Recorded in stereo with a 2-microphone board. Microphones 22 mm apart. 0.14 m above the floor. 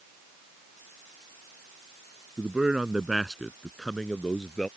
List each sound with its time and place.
2.4 s a man speaking: 40° right (ahead or behind); by 4.7 s 30° left (ahead or behind)